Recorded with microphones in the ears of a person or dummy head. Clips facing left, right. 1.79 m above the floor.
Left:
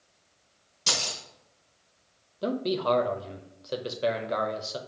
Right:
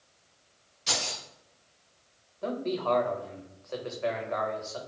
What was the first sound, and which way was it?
Keys jangling, 50° left (ahead or behind).